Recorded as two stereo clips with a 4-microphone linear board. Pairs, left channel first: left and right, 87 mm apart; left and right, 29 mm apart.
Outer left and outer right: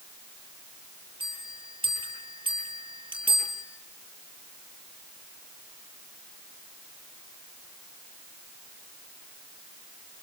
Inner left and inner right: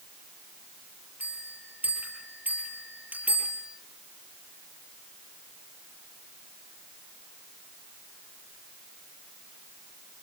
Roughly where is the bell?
Right.